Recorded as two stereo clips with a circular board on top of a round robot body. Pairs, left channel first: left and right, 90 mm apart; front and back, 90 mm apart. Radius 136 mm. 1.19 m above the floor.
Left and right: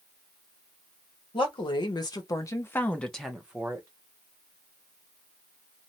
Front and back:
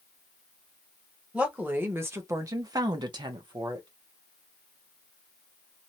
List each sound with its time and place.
1.3 s a woman speaking: 105° left, 1.1 m; by 3.9 s 155° right, 0.9 m